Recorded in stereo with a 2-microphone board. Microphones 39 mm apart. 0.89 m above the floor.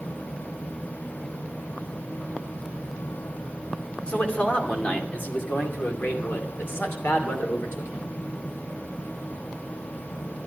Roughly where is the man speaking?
Left.